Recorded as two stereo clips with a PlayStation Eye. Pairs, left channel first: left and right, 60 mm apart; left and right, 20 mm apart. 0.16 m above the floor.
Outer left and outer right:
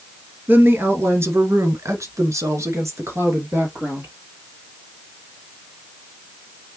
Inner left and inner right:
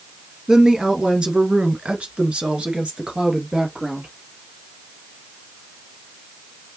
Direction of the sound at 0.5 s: 30° right (ahead or behind).